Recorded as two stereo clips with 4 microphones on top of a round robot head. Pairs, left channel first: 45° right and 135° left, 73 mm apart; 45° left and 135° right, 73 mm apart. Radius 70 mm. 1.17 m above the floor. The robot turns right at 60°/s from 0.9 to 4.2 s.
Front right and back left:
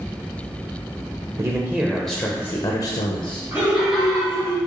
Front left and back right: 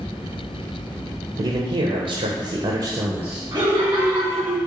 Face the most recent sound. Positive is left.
turn(degrees=-125)